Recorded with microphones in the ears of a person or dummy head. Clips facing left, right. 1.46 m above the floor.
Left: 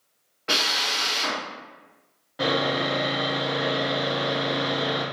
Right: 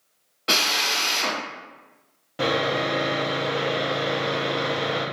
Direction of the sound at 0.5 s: 50° right (ahead or behind).